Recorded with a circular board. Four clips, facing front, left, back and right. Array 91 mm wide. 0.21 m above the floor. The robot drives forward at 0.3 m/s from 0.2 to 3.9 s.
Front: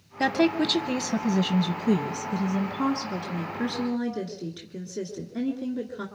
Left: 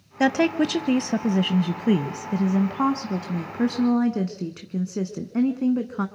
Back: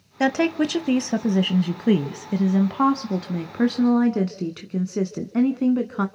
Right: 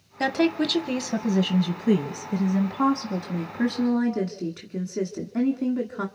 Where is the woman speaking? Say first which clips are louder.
Left 3 dB, back 2 dB; 125° left, 1.0 m; by 6.1 s 170° left, 1.6 m.